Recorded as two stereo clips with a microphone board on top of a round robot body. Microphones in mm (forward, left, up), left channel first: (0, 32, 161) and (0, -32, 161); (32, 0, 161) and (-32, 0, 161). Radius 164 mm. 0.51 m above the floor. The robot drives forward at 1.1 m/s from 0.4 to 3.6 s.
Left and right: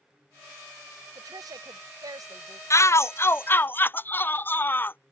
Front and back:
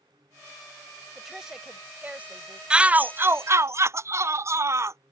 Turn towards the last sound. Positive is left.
turn(degrees=145)